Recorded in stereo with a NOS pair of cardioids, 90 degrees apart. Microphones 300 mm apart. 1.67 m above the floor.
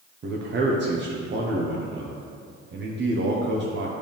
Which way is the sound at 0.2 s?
40° right.